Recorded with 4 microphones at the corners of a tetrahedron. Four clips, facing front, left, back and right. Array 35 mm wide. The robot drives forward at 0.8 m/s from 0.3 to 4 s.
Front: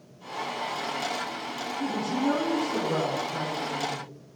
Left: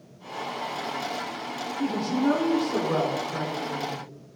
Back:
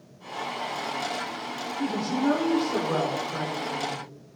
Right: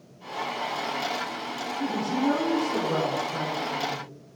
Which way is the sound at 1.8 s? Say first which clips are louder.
Left 1 dB, back 2 dB; 140° left.